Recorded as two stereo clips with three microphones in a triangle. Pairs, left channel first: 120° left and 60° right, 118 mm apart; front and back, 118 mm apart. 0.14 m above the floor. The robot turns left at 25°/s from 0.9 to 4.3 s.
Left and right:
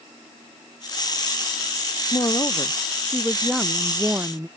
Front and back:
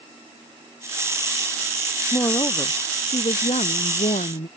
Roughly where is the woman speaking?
Ahead left.